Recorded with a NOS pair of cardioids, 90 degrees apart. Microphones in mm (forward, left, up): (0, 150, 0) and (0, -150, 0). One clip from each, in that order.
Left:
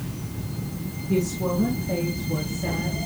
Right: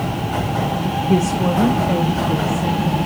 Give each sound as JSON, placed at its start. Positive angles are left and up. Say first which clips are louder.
{"t": 1.1, "sound": "a woman speaking", "louder": "right 5 dB", "azimuth_deg": -40, "distance_m": 2.5}